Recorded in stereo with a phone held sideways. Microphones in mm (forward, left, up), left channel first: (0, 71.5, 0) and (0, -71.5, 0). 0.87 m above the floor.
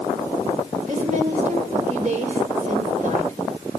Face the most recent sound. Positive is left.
turn(degrees=-55)  # may be behind; listen again after turning